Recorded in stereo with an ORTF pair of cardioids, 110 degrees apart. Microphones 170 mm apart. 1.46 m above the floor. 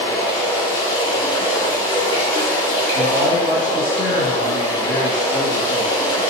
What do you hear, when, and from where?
0.0 s running water: 30° left, 1.4 m
3.0 s a man speaking: 30° left, 1.4 m